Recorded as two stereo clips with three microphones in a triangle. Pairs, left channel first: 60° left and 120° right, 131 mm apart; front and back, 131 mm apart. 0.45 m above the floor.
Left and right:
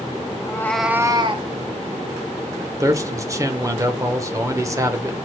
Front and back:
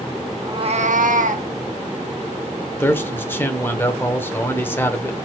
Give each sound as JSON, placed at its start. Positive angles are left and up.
{"t": 0.4, "sound": "a cat meowing", "azimuth_deg": 115, "distance_m": 0.7}
{"t": 2.8, "sound": "a man speaking", "azimuth_deg": -65, "distance_m": 0.9}